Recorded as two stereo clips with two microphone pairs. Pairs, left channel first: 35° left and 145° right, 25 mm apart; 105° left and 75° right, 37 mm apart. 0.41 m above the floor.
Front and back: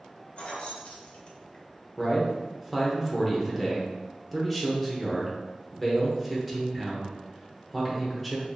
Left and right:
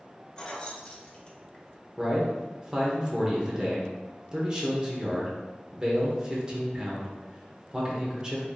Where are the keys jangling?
50° left, 0.6 m.